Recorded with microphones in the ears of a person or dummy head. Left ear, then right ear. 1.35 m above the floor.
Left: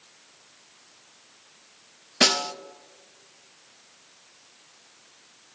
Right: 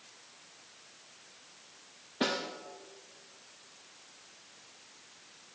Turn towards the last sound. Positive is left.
turn(degrees=70)  # may be behind; listen again after turning